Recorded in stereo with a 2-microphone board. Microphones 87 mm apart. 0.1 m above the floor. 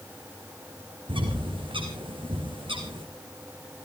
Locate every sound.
1.1 s a bird: 75° right (ahead or behind), 3.5 m